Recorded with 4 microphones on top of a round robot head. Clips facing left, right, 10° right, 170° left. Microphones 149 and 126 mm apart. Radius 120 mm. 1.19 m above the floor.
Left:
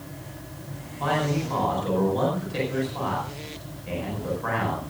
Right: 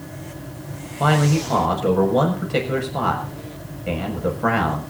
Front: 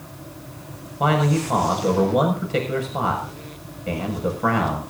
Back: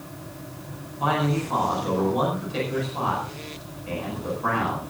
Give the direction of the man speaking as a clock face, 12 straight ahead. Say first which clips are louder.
Right 6 dB, front 4 dB; 2 o'clock.